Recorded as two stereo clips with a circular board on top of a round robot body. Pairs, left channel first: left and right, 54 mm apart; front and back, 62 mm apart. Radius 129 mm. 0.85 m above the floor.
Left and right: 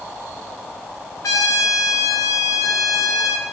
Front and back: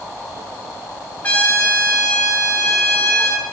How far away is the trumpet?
About 1.3 m.